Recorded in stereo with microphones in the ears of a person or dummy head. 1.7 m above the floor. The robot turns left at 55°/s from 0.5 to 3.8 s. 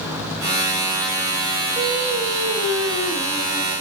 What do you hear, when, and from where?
1.8 s singing: 25° right, 6 m; by 3.8 s 140° right, 6 m